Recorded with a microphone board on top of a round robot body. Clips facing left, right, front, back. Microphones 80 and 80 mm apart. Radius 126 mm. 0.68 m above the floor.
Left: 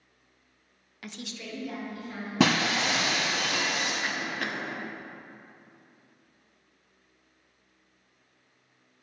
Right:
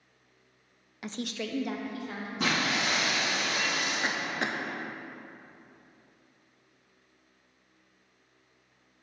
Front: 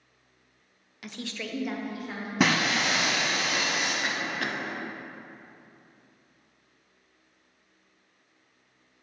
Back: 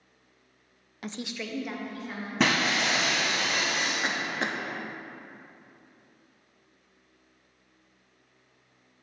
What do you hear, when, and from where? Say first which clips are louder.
1.0 s a woman speaking: right 6 dB, back 1 dB; 155° right, 0.5 m; by 3.3 s 75° right, 3 m
2.4 s breaking glass: left 5 dB, front 1 dB; 85° left, 0.7 m
4.0 s a cough: right 1 dB, back 1 dB; 140° right, 0.8 m